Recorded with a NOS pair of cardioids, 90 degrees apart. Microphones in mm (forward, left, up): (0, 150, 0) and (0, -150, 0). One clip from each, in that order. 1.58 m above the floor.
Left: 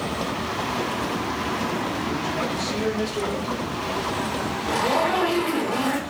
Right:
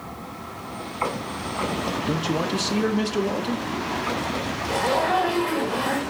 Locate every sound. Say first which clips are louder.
2.1 s a man speaking: right 1 dB; 50° right, 0.6 m
4.7 s a zipper: even; 25° left, 1.2 m